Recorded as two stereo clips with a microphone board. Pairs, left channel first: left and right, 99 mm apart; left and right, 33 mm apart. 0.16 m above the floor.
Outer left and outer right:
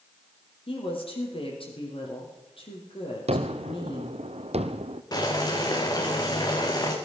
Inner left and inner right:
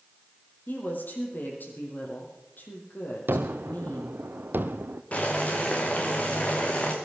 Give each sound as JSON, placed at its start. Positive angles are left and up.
{"t": 0.7, "sound": "a woman speaking", "side_deg": 60, "distance_m": 5.0}
{"t": 3.3, "sound": "a gunshot", "side_deg": -80, "distance_m": 1.0}
{"t": 5.1, "sound": "boiling", "side_deg": 40, "distance_m": 3.0}